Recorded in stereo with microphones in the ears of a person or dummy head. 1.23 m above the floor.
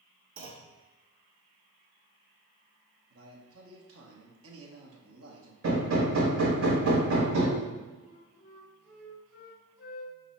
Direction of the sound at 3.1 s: 75° right (ahead or behind).